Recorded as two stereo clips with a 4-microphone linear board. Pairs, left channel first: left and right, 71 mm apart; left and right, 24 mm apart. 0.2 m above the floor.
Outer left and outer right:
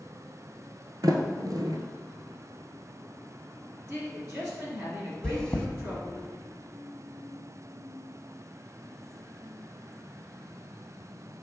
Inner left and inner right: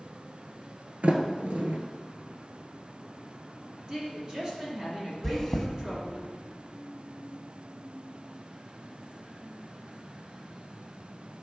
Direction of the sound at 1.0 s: 70° right (ahead or behind).